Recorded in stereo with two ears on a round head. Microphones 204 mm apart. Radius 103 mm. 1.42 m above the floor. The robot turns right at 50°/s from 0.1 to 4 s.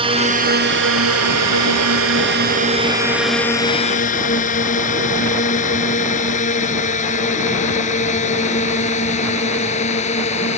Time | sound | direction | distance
0.0 | a drone | 25° right (ahead or behind) | ?